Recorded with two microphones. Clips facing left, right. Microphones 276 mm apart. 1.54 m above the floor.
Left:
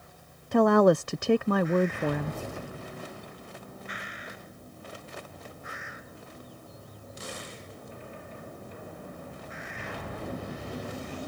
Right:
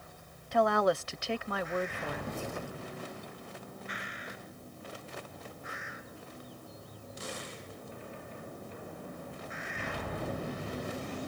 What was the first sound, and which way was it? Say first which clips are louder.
A woman speaking: left 8 dB; 55° left (ahead or behind).